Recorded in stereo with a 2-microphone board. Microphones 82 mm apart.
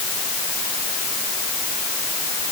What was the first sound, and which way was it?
Only background noise.